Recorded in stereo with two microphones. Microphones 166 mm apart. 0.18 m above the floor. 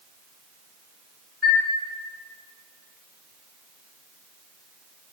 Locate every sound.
1.4 s a chime: centre (ahead or behind), 1.3 m